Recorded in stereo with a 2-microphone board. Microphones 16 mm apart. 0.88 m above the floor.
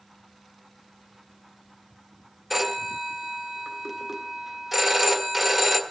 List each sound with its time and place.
2.5 s a phone ringing: centre (ahead or behind), 1.6 m